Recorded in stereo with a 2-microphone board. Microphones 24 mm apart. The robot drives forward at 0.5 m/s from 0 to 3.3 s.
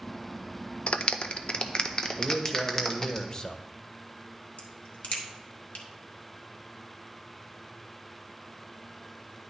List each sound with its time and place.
0.9 s a clap: 55° left (ahead or behind), 0.5 m; by 3.2 s 20° left (ahead or behind), 1.3 m
2.2 s a man speaking: 20° left (ahead or behind), 1.2 m; by 3.6 s 30° left (ahead or behind), 0.7 m
4.6 s a crack: 85° left, 1.5 m